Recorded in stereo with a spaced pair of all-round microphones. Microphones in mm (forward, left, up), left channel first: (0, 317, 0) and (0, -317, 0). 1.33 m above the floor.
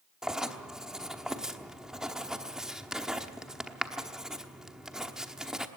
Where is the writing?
Centre (ahead or behind), 1.0 m.